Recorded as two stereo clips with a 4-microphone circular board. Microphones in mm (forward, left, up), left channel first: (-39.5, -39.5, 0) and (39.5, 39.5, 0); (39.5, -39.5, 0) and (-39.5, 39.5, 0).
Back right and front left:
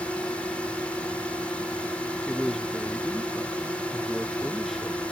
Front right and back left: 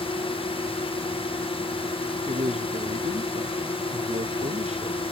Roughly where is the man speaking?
Behind left.